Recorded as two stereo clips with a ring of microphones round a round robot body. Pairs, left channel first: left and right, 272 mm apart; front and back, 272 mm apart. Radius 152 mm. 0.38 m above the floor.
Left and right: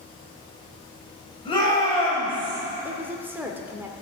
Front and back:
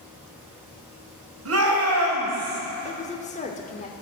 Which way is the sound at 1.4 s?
160° left.